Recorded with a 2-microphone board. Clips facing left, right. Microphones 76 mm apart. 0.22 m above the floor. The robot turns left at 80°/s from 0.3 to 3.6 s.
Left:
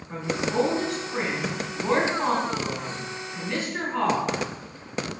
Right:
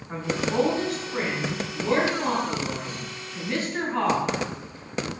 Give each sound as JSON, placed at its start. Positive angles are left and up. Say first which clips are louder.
{"t": 0.1, "sound": "a woman speaking", "louder": "even", "azimuth_deg": -130, "distance_m": 1.9}